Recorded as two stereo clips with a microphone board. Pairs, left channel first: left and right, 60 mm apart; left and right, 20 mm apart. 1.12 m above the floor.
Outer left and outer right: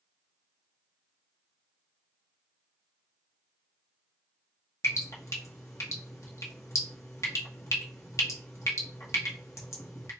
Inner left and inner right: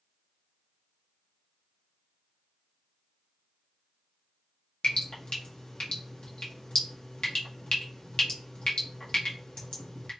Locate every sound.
4.8 s dripping: 55° left (ahead or behind), 0.9 m